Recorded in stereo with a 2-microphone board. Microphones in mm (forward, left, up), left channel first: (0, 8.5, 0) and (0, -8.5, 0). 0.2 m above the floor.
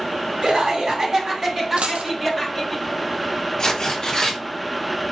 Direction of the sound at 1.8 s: 80° right.